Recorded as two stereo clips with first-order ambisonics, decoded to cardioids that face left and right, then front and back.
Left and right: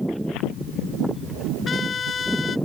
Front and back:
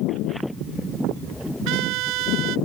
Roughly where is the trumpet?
Behind left.